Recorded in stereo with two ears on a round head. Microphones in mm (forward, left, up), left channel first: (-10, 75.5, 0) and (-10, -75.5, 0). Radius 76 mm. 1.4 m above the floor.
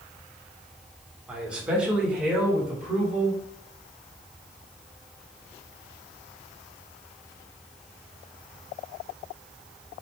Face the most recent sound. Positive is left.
turn(degrees=-5)  # may be behind; listen again after turning